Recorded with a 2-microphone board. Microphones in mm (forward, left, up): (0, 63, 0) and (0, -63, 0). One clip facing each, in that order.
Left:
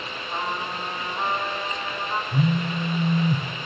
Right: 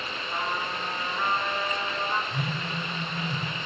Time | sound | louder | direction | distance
0.3 | a trumpet | left 2 dB | 35° left (ahead or behind) | 3 m
2.3 | a phone buzzing | left 8 dB | 50° left (ahead or behind) | 2 m